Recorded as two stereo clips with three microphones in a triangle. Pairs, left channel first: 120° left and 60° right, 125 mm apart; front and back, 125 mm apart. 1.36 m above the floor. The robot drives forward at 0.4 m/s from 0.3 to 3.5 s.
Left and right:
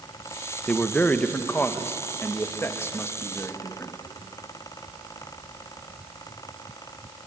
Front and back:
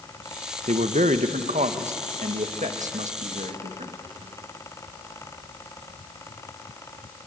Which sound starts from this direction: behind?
A man speaking, at 0.7 s.